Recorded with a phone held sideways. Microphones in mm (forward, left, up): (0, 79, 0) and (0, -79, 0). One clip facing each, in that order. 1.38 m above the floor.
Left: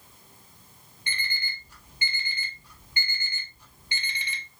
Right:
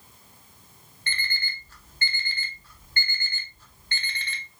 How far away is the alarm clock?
About 0.8 m.